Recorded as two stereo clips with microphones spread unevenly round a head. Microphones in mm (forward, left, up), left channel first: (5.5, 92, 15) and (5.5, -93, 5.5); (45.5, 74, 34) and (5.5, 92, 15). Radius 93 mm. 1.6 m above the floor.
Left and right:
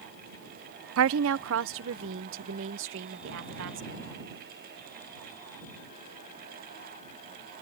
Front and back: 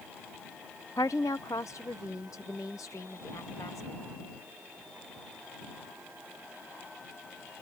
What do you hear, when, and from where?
1.0 s a woman speaking: 75° right; by 4.0 s 65° right